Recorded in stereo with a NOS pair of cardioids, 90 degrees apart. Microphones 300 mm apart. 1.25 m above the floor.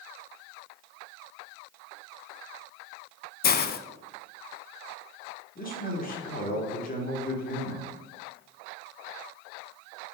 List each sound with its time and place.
3.4 s a hiss: 35° left, 0.5 m
5.5 s a man speaking: 30° left, 2.5 m